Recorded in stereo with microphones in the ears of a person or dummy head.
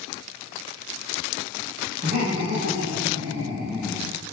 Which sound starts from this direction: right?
Laughter, at 2.0 s.